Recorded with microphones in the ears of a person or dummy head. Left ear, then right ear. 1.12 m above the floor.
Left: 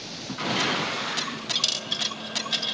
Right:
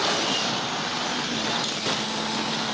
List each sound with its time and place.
1.6 s a dropped coin: 50° left (ahead or behind), 1.7 m